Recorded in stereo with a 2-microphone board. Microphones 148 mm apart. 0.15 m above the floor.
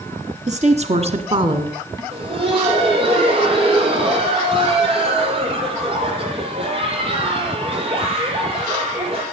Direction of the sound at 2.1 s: 40° right (ahead or behind).